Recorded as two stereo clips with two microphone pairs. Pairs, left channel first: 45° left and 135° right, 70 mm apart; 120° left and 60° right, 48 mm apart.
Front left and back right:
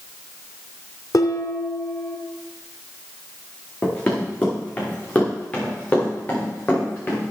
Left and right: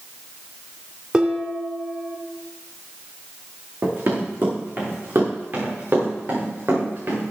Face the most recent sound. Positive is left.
turn(degrees=-25)